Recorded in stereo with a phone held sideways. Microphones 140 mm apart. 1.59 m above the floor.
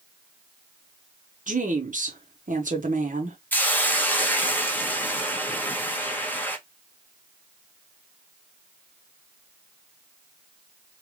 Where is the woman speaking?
65° right (ahead or behind), 1.1 m.